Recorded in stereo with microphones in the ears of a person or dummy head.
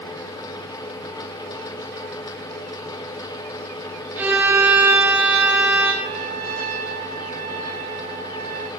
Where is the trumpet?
50° right (ahead or behind), 2 m.